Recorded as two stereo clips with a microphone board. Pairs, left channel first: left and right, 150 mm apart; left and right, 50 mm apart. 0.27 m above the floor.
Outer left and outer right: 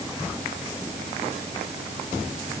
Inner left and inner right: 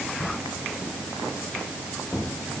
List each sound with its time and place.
Only background noise.